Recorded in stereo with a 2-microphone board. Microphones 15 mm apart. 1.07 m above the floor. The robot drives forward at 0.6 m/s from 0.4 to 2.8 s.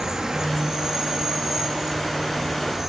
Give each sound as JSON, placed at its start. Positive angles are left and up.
{"t": 0.0, "sound": "an insect", "side_deg": -45, "distance_m": 2.0}